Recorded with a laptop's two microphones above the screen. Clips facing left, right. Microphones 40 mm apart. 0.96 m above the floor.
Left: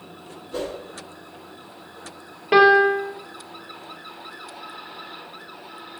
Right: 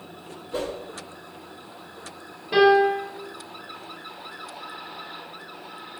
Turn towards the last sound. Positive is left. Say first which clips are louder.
# left 3 dB
turn(degrees=90)